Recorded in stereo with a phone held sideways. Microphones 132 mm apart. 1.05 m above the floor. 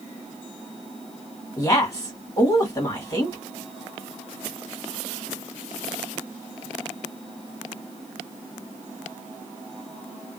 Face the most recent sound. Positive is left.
turn(degrees=25)  # may be behind; listen again after turning